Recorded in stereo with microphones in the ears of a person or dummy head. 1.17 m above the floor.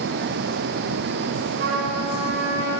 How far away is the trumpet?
About 4 m.